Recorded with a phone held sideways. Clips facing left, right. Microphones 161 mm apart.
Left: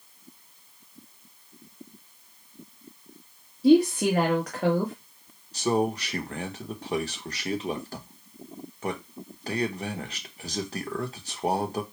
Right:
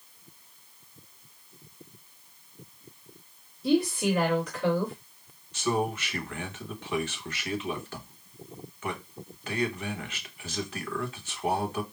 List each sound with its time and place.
3.6 s a woman speaking: 75° left (ahead or behind), 1.2 m
5.5 s a man speaking: 35° left (ahead or behind), 1.0 m